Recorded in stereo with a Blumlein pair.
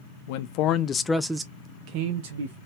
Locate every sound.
0.3 s a man speaking: 50° left, 0.8 m; by 2.6 s 60° right, 1.1 m